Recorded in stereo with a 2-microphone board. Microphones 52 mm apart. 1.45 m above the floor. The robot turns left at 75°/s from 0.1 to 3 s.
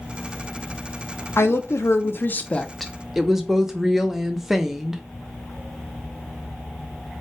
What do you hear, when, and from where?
1.4 s a woman speaking: 110° left, 0.5 m; by 5.0 s 10° right, 0.5 m